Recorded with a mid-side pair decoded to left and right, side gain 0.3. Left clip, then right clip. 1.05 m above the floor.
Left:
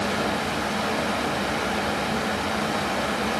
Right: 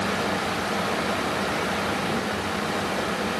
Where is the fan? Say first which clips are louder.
Even; 70° left, 1.1 m.